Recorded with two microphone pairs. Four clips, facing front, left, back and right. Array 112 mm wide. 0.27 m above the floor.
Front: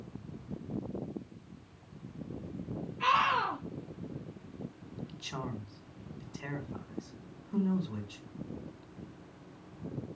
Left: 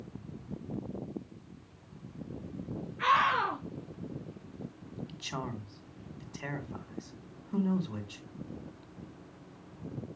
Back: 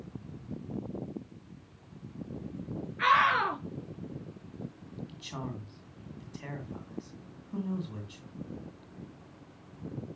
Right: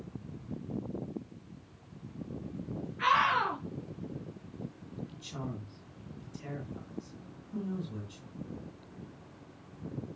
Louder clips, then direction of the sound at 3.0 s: Even, back 3 dB; 170° left.